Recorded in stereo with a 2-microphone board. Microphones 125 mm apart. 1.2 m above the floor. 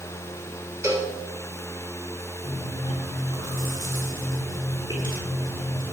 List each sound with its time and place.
0.8 s a cowbell: 20° right (ahead or behind), 2.5 m
2.4 s chewing: 35° right (ahead or behind), 7.5 m